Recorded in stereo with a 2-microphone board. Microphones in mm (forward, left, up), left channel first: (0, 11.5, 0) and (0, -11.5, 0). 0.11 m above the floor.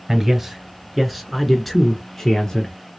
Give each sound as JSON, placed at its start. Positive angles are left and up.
{"t": 0.1, "sound": "a man speaking", "side_deg": -15, "distance_m": 1.4}